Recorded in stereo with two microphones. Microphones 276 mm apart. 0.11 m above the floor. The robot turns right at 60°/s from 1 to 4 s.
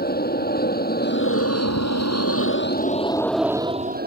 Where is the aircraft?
40° left; by 4.1 s 140° right.